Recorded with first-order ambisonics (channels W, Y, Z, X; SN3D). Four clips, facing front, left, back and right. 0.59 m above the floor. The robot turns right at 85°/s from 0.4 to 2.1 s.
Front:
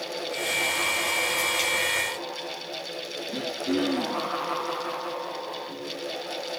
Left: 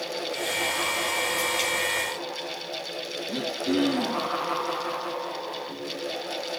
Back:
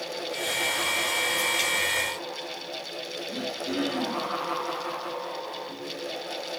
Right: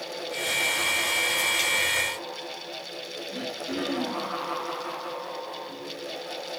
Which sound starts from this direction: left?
Throat clearing, at 3.3 s.